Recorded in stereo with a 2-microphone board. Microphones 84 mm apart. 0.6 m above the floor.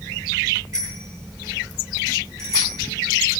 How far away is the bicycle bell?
About 10 m.